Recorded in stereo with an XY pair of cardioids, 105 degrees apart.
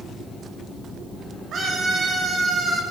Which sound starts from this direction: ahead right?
A scream, at 1.5 s.